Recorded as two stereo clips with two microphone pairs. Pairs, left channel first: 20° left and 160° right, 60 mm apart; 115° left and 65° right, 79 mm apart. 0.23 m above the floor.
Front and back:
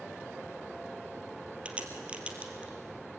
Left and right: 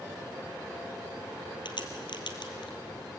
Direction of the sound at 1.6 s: 125° left.